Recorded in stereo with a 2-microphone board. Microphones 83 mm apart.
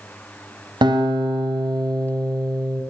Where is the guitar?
65° right (ahead or behind), 0.7 m.